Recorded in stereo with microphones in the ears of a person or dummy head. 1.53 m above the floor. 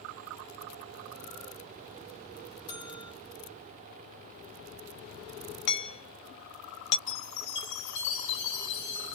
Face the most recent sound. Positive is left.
turn(degrees=75)  # may be behind; listen again after turning